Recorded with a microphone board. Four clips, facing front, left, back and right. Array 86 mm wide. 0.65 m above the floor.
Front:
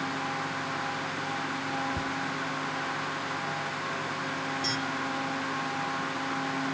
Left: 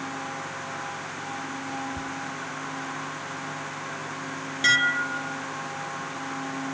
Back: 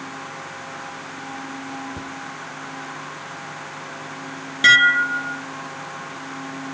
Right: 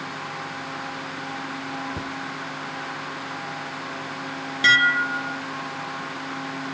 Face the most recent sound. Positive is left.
turn(degrees=-165)